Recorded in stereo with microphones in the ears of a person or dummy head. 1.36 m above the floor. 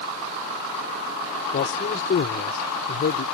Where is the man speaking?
55° left (ahead or behind).